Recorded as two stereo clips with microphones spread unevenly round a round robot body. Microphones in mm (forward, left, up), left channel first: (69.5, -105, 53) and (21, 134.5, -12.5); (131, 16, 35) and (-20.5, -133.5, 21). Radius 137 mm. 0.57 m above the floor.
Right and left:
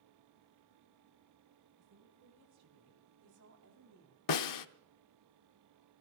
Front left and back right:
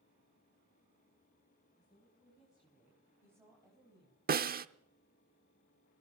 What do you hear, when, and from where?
1.8 s a woman speaking: 135° left, 5.5 m; by 4.2 s 150° left, 4 m
4.3 s a snare drum: 90° right, 0.8 m